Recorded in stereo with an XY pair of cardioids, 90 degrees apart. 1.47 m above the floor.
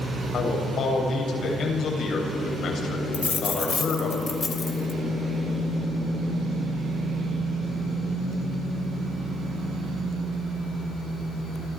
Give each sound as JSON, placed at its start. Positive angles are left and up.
{"t": 0.3, "sound": "a man speaking", "azimuth_deg": 70, "distance_m": 7.5}
{"t": 3.1, "sound": "a dropped coin", "azimuth_deg": 40, "distance_m": 3.0}